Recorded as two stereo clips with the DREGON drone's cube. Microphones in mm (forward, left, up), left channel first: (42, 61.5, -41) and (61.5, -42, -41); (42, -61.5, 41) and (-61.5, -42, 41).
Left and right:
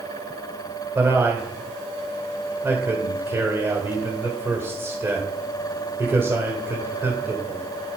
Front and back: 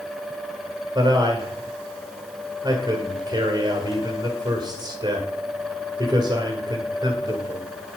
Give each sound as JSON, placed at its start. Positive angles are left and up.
{"t": 0.9, "sound": "a man speaking", "azimuth_deg": -145, "distance_m": 1.7}